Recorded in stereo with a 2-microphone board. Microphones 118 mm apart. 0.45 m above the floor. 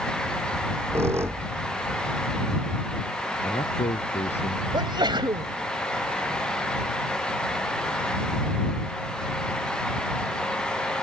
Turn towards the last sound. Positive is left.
turn(degrees=-40)  # may be behind; listen again after turning